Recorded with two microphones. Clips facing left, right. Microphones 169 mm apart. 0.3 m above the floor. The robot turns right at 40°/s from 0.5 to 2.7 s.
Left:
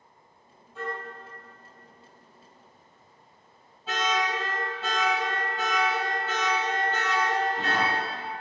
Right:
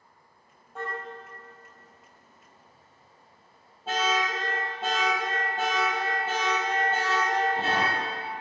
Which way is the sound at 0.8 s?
55° right (ahead or behind).